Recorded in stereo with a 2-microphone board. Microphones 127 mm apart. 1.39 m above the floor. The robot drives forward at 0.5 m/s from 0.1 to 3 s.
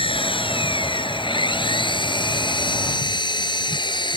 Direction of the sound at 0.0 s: 45° left (ahead or behind).